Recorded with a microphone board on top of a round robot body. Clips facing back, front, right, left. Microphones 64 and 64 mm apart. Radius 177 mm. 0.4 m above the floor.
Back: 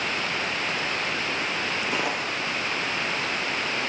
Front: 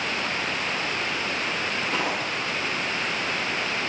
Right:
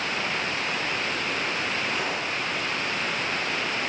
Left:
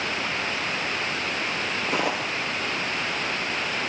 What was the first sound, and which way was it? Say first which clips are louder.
Footsteps: even, left 3 dB; 100° left.